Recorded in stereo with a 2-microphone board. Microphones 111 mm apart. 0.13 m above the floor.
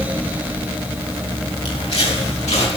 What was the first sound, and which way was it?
Footsteps, 65° left (ahead or behind).